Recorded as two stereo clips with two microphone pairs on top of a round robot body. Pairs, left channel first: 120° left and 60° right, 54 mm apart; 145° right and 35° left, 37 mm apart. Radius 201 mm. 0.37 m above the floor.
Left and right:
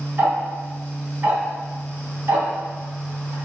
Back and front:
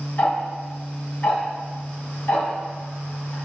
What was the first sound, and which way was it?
Ticking, 115° right.